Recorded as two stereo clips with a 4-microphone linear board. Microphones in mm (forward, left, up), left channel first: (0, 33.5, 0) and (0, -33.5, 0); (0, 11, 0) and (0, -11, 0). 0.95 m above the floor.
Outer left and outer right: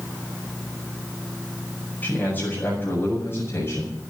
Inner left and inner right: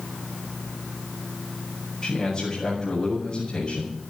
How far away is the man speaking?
About 5.5 m.